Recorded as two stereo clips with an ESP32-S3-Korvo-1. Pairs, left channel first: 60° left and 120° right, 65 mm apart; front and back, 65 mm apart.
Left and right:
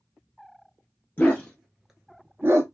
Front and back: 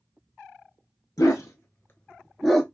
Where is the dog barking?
Straight ahead, 1.1 m; by 2.6 s 95° right, 0.9 m.